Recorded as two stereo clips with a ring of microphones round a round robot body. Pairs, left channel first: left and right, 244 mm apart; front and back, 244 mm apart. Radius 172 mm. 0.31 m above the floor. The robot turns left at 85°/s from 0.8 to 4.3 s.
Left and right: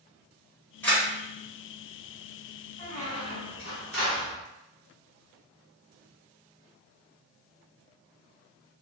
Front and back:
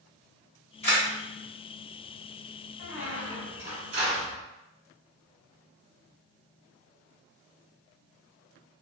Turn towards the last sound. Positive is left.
turn(degrees=155)